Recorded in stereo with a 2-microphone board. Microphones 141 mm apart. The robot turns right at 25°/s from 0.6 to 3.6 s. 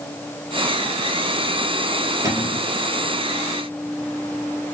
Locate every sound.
2.2 s a cupboard door: 25° right (ahead or behind), 2 m; by 2.7 s 15° right (ahead or behind), 2 m